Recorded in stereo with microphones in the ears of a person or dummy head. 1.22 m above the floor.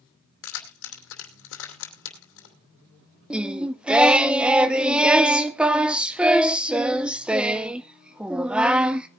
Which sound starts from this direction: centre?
Singing, at 3.3 s.